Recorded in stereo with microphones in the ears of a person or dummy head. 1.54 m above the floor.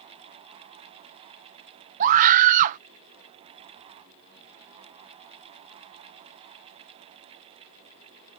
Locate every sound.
2.0 s a scream: 45° right (ahead or behind)